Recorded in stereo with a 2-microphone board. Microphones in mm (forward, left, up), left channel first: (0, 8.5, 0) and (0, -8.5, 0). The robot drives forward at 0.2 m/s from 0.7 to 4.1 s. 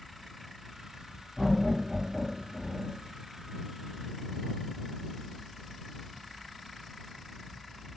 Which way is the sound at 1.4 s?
Centre (ahead or behind).